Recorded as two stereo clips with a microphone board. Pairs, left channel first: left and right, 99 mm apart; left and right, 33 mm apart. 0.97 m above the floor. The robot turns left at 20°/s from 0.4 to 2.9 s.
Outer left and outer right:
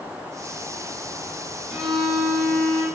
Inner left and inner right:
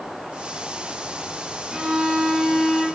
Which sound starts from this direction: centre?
A violin, at 1.7 s.